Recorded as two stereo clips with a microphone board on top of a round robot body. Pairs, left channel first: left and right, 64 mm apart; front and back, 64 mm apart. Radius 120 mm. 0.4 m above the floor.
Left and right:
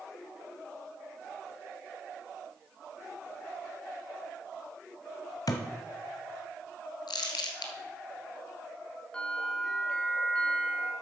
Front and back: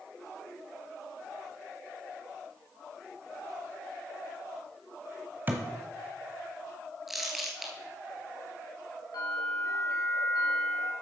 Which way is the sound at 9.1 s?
15° left.